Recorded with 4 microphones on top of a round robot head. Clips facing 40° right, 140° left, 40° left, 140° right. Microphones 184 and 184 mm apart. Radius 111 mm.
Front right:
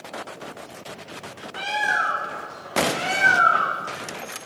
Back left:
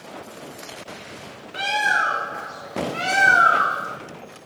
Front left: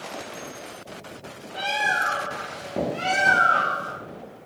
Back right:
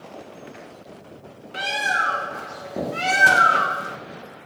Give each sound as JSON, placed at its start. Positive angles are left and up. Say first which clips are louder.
{"t": 1.5, "sound": "a bird", "louder": "back left 2 dB, even", "azimuth_deg": -170, "distance_m": 1.2}